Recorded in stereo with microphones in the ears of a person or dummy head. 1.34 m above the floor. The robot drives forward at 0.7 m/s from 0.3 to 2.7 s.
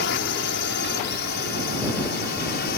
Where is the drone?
55° left (ahead or behind); by 2.8 s 50° left (ahead or behind).